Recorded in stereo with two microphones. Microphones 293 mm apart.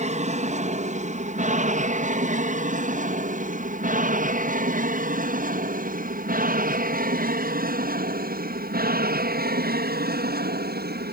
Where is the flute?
I don't hear a flute.